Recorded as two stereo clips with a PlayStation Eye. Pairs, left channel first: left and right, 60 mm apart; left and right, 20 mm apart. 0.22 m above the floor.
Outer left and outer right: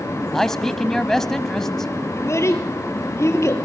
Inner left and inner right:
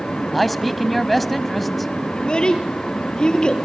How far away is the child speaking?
About 3 m.